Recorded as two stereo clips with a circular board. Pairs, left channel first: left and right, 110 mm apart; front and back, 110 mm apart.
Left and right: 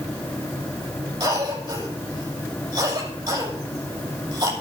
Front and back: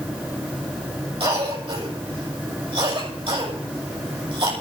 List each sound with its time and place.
1.2 s a cough: 145° right, 7.5 m